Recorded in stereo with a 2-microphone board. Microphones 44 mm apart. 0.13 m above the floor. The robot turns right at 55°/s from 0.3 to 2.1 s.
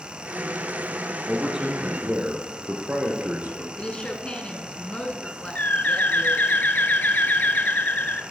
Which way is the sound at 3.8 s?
25° left (ahead or behind).